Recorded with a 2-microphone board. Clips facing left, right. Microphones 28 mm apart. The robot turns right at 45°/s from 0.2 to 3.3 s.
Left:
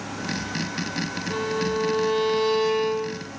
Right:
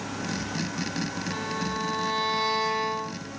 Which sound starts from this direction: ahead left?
A violin, at 1.3 s.